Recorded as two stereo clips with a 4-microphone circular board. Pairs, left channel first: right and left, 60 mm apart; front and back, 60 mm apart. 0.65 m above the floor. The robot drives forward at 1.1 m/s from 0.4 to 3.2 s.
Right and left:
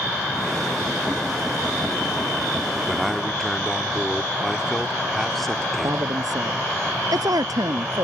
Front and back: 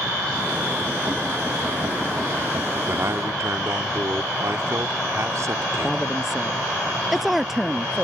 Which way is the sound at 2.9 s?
175° right.